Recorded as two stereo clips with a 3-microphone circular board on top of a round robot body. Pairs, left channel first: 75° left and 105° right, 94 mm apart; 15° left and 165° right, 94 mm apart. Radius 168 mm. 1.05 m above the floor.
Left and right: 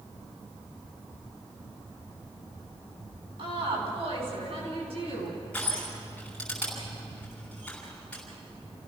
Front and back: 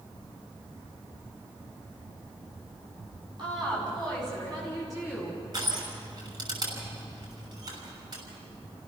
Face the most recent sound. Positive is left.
turn(degrees=155)